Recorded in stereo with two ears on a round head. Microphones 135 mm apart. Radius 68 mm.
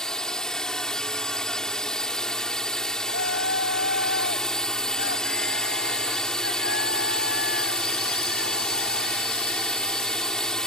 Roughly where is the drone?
Centre.